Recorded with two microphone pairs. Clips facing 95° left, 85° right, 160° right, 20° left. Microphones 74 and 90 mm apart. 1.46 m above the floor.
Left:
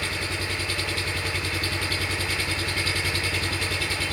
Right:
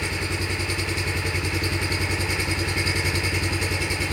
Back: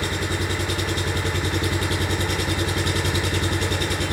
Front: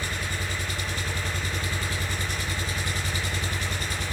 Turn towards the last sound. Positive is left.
turn(degrees=-155)